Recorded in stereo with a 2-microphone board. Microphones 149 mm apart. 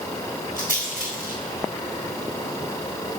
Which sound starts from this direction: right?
A rattle, at 0.6 s.